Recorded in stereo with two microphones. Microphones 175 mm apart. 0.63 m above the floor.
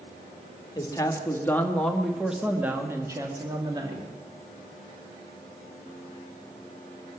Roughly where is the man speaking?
Left.